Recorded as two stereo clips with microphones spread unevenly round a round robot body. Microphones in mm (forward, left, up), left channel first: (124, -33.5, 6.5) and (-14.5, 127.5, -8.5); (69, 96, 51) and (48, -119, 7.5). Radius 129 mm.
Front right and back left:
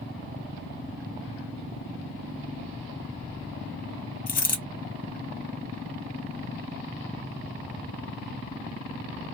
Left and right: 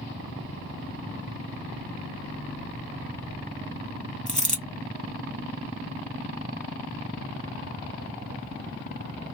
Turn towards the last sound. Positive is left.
turn(degrees=0)